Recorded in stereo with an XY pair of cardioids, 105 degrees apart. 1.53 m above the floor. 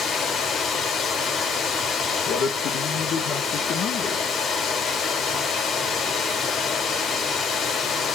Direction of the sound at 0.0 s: 65° left.